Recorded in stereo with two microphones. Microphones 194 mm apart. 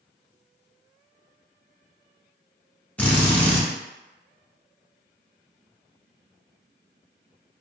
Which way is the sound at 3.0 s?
10° left (ahead or behind).